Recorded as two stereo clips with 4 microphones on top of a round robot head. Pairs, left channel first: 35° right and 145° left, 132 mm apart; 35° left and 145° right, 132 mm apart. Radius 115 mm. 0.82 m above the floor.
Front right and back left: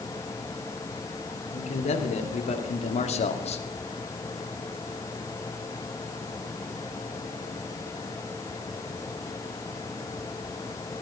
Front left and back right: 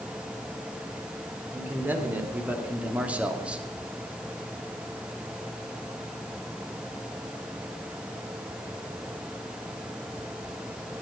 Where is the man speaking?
70° right, 3.5 m; by 3.6 s 65° right, 1.9 m.